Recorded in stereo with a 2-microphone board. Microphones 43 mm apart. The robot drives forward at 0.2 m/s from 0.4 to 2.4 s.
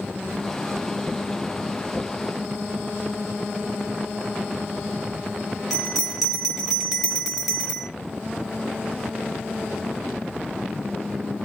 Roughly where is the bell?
Centre.